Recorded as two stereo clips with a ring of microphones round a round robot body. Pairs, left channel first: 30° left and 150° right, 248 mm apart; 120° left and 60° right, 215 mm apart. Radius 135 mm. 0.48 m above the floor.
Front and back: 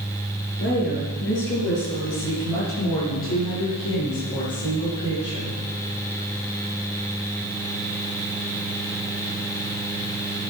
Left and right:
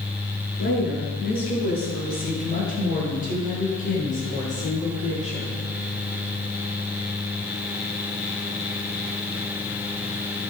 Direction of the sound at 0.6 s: 80° left.